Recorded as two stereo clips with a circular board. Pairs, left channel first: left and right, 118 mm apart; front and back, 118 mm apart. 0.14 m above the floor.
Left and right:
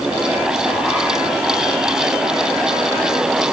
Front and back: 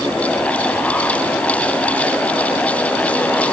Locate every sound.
Only background noise.